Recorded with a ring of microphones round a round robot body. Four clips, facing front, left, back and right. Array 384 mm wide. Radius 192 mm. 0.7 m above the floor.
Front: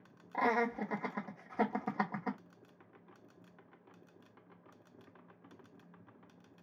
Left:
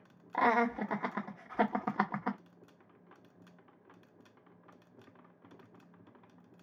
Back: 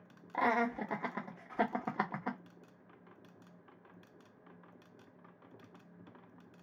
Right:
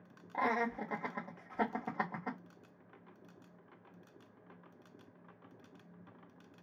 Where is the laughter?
105° left, 1.0 m.